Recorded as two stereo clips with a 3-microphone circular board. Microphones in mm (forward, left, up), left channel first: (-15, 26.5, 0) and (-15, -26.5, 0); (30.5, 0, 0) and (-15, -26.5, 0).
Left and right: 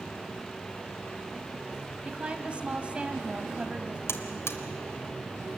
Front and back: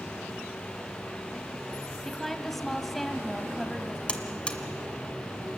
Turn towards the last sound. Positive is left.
turn(degrees=95)